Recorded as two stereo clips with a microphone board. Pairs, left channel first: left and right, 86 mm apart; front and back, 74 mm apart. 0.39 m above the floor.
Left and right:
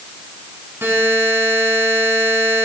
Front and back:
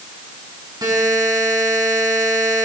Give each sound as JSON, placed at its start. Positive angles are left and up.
{"t": 0.8, "sound": "a buzzer", "azimuth_deg": -150, "distance_m": 4.5}